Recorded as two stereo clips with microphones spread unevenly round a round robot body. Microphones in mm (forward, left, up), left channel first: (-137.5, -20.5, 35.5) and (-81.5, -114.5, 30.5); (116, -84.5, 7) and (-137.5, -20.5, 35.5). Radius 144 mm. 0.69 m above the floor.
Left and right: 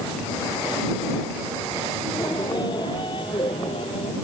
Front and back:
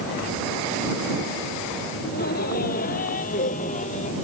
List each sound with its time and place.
2.0 s laughter: 45° left; by 4.2 s 55° left